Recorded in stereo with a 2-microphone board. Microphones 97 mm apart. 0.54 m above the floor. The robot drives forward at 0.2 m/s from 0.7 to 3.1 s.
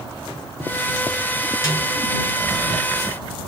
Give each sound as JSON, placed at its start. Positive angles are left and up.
{"t": 1.6, "sound": "a snare drum", "side_deg": 30, "distance_m": 2.5}